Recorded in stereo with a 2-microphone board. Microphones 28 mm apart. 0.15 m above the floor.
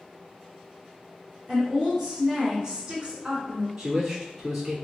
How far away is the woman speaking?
About 2.0 m.